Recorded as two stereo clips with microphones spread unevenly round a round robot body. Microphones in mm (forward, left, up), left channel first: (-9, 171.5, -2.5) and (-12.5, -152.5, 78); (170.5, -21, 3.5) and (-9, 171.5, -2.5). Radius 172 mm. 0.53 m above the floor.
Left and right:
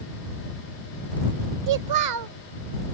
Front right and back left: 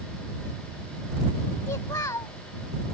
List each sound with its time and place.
1.7 s a child speaking: 130° right